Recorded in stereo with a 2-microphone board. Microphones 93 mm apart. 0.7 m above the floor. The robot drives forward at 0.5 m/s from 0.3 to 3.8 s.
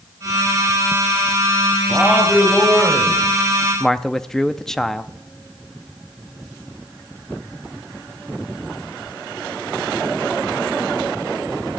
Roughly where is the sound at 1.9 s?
Centre.